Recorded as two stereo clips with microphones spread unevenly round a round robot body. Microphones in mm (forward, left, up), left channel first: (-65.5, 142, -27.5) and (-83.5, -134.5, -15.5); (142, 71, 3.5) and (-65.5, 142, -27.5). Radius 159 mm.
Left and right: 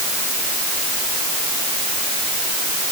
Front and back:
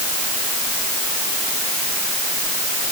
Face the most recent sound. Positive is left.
No sound to turn to.